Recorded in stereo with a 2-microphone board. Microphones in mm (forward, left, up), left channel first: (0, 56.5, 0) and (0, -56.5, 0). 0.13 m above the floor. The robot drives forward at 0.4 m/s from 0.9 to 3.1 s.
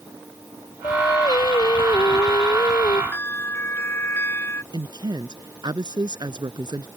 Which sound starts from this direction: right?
A woman speaking, at 4.7 s.